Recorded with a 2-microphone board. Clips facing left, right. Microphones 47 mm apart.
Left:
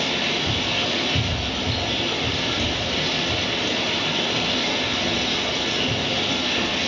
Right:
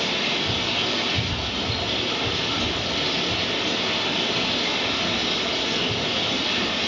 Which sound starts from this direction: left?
Running water, at 0.0 s.